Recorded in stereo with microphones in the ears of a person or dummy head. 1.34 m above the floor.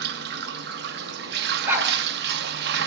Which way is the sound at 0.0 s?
55° right (ahead or behind).